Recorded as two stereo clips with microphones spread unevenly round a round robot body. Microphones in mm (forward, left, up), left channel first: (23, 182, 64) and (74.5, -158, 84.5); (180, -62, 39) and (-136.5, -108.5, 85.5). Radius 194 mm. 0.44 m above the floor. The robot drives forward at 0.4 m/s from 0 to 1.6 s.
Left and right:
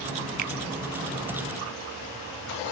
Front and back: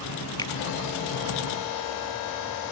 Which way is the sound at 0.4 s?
60° right.